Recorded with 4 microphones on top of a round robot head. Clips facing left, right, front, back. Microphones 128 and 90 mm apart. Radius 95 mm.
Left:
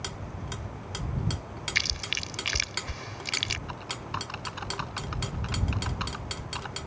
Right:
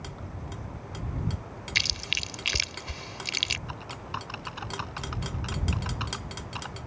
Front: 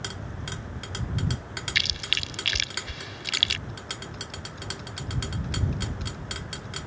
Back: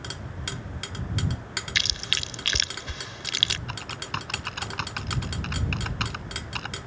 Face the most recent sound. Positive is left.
turn(degrees=180)